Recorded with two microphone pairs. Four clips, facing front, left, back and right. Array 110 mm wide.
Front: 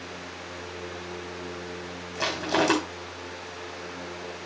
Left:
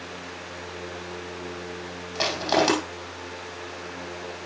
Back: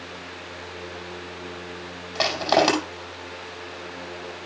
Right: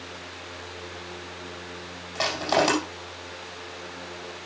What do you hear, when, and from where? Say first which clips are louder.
2.1 s crushing: even, back 5 dB; 175° left, 5 m